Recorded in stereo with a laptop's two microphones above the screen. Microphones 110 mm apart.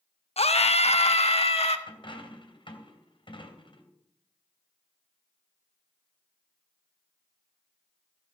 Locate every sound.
0.4 s a scream: 70° left (ahead or behind), 0.9 m; by 1.8 s 65° left (ahead or behind), 1.7 m
1.9 s a dropped coin: 50° left (ahead or behind), 2.5 m